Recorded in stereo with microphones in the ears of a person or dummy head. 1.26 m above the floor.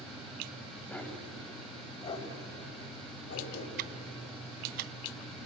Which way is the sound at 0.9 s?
10° left (ahead or behind).